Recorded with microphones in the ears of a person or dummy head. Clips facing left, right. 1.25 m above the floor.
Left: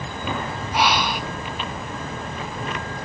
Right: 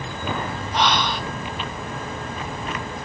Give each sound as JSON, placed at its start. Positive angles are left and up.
{"t": 0.7, "sound": "breathing", "side_deg": 10, "distance_m": 0.8}